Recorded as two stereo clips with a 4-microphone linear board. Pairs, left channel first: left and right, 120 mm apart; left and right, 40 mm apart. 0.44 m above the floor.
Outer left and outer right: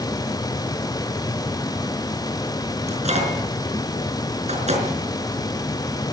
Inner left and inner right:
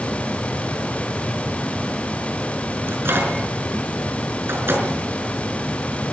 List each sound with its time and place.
2.9 s a microwave: 65° right (ahead or behind), 5 m